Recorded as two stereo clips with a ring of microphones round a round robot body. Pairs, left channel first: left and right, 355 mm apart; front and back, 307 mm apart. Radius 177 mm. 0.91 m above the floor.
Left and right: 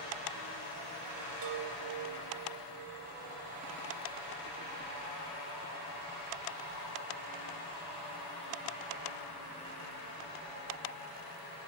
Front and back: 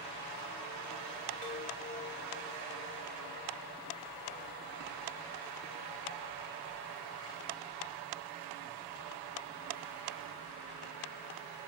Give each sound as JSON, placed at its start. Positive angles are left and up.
{"t": 1.4, "sound": "a chime", "azimuth_deg": -70, "distance_m": 3.0}